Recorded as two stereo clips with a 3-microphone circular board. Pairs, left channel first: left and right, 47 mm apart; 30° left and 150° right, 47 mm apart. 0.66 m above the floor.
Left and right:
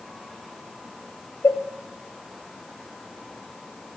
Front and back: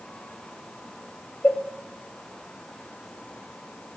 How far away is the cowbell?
About 1.1 m.